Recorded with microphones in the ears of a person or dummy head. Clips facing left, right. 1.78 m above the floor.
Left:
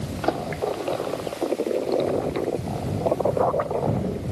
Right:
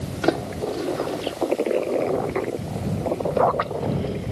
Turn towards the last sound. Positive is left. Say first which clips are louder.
# right 2 dB
turn(degrees=-30)  # may be behind; listen again after turning